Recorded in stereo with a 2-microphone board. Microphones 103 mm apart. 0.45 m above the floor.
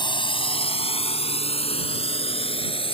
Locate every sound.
0.0 s a drone: 50° left (ahead or behind); by 2.9 s 65° left (ahead or behind)